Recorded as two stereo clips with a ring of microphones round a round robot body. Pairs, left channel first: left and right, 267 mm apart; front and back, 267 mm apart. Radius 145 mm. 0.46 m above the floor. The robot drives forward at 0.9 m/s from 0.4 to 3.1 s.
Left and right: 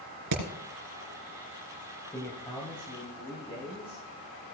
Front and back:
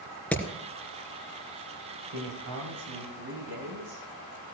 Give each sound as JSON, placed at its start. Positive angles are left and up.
{"t": 0.3, "sound": "hammering", "azimuth_deg": -85, "distance_m": 3.0}
{"t": 2.1, "sound": "a man speaking", "azimuth_deg": 170, "distance_m": 2.0}